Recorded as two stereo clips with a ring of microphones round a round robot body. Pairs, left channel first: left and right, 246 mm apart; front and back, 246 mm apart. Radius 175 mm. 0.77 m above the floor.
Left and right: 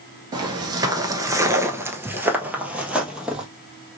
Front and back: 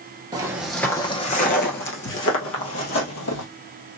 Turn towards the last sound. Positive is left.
turn(degrees=-5)